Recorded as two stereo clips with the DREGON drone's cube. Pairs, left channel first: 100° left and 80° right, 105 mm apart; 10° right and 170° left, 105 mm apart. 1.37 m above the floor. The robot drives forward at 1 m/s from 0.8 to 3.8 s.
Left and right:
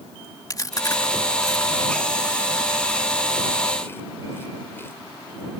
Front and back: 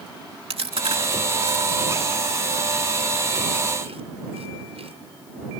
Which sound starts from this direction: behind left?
Chewing, at 0.5 s.